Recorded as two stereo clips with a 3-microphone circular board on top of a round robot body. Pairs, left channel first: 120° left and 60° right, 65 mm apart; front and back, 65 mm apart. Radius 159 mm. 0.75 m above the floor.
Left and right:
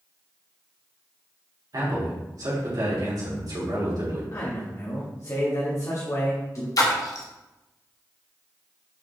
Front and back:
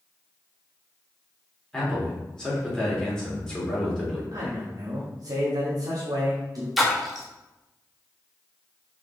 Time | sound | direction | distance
1.7 | a man speaking | 80° right | 3.5 m
4.3 | a man speaking | 160° left | 1.7 m
6.8 | a splash | 90° left | 1.3 m